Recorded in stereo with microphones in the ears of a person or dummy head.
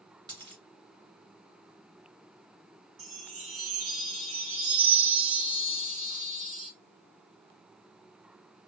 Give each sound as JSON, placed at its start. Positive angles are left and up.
{"t": 0.3, "sound": "a dropped coin", "side_deg": -25, "distance_m": 1.8}
{"t": 3.0, "sound": "a chime", "side_deg": -40, "distance_m": 1.5}